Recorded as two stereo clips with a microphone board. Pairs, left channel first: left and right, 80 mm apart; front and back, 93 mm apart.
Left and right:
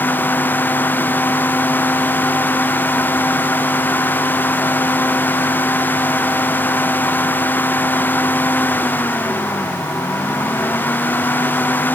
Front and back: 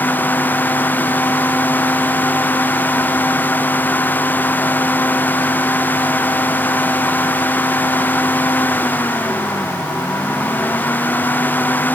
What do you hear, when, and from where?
Only background noise.